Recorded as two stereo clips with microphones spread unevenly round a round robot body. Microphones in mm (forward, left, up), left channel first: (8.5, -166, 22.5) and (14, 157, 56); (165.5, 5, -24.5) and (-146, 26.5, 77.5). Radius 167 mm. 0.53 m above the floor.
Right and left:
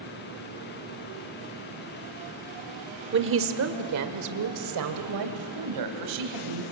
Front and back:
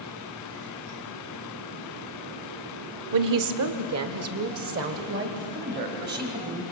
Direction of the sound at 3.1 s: 145° left.